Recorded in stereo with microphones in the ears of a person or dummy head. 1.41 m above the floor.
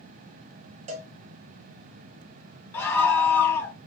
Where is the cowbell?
30° right (ahead or behind), 1.0 m.